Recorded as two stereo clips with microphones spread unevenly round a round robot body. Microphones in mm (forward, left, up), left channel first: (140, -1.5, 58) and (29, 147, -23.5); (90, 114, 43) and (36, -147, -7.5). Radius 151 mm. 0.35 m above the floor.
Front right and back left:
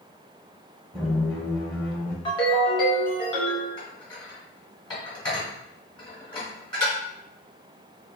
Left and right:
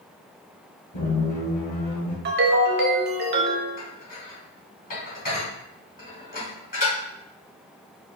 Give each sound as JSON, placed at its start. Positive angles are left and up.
{"t": 0.9, "sound": "a squeak", "azimuth_deg": 50, "distance_m": 1.4}
{"t": 2.2, "sound": "a ringtone", "azimuth_deg": -135, "distance_m": 0.7}
{"t": 3.8, "sound": "dishes clattering", "azimuth_deg": 20, "distance_m": 2.0}